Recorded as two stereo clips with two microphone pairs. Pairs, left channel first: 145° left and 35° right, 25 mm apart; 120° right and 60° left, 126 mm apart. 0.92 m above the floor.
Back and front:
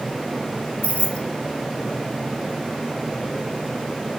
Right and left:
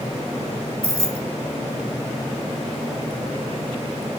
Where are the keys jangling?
125° left, 0.8 m.